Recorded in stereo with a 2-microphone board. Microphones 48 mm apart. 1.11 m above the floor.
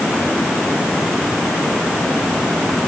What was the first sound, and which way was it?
Only background noise.